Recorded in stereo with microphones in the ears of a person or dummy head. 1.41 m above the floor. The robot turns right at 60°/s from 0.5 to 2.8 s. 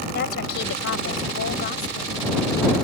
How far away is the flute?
I don't hear a flute.